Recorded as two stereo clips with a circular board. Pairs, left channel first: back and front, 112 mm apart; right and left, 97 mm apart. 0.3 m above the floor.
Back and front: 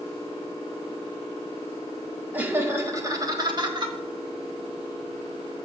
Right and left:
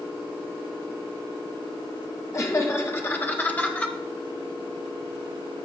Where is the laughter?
65° right, 1.3 m; by 4.0 s 20° right, 1.7 m.